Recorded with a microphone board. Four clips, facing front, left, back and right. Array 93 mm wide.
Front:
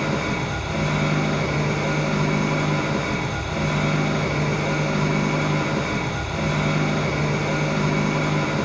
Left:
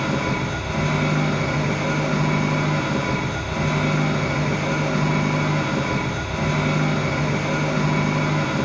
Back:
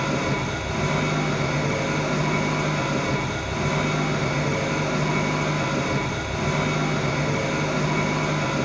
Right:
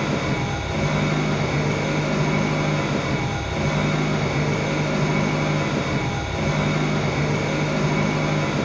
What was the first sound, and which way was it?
An engine running, 50° left.